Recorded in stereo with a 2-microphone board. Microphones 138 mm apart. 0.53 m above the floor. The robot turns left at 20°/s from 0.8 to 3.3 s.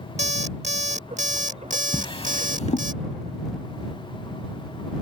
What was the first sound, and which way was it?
An alarm clock, 60° right.